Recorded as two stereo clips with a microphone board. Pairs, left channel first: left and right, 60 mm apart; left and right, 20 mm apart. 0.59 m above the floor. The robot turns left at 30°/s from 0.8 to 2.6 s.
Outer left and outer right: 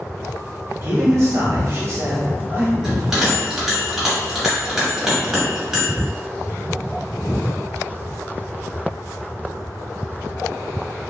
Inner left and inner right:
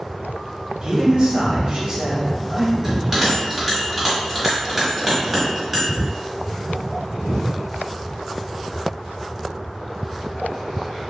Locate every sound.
0.8 s a man speaking: 85° right, 1.3 m; by 2.7 s 135° right, 1.3 m
2.8 s a bell: 5° right (ahead or behind), 1.4 m